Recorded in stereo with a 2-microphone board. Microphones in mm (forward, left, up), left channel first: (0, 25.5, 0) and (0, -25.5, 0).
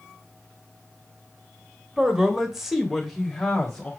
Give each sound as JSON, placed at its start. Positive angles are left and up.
{"t": 2.0, "sound": "a man speaking", "side_deg": -10, "distance_m": 1.3}